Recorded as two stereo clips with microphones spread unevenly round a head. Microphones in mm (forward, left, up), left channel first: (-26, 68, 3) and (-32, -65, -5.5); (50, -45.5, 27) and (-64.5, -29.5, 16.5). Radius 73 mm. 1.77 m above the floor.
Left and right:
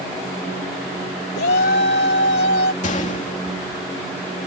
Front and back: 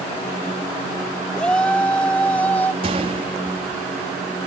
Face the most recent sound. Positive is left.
turn(degrees=120)